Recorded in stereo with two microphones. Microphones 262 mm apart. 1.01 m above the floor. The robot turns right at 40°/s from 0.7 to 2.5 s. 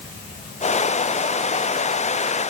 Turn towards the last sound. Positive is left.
No sound to turn to.